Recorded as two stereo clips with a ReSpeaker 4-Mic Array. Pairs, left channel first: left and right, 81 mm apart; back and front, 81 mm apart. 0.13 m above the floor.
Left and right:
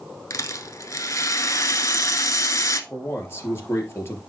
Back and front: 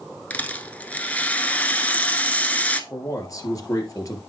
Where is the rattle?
115° left, 1.0 m.